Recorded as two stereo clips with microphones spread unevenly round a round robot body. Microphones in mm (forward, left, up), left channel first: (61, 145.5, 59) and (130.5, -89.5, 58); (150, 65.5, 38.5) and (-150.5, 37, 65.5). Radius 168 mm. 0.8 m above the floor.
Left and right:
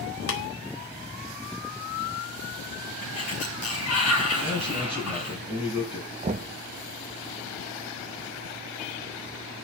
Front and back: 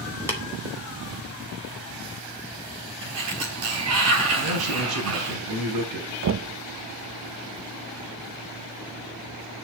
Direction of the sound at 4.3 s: 160° right.